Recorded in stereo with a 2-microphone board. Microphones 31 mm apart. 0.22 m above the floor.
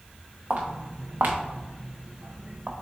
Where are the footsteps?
55° right (ahead or behind), 1.1 m; by 2.7 s 50° right (ahead or behind), 1.4 m.